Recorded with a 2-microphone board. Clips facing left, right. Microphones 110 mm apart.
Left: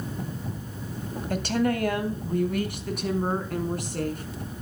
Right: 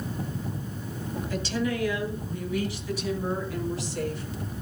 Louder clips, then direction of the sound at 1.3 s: Left 5 dB; 55° left (ahead or behind).